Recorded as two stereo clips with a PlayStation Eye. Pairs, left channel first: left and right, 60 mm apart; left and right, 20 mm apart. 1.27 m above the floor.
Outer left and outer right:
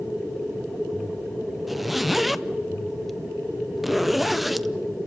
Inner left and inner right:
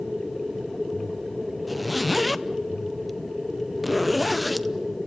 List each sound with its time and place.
1.7 s a zipper: 5° right (ahead or behind), 0.6 m